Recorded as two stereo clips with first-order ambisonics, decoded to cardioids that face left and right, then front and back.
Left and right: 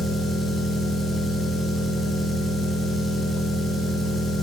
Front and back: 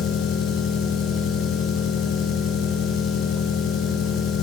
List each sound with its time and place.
0.0 s an engine running: 10° left, 8.5 m